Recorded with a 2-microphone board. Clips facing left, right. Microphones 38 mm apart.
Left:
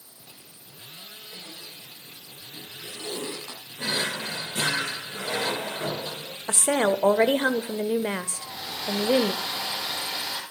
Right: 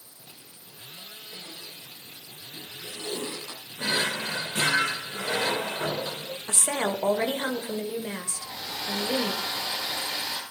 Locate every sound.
1.3 s a zipper: 20° left (ahead or behind), 5.5 m
3.8 s a drawer: 35° right (ahead or behind), 1.0 m
6.5 s a woman speaking: 40° left (ahead or behind), 1.5 m
8.3 s a hair dryer: 10° left (ahead or behind), 4 m